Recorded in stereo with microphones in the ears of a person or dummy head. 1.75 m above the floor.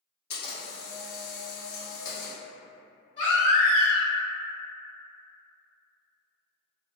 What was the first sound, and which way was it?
A camera shutter, 60° left (ahead or behind).